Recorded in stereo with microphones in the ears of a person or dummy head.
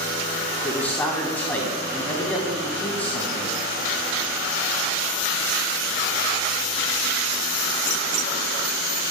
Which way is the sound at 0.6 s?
15° left (ahead or behind).